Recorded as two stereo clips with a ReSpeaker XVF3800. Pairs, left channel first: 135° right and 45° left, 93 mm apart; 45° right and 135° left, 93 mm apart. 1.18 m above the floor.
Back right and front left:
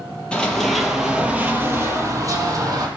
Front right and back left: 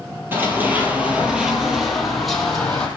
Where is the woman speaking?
I don't hear a woman speaking.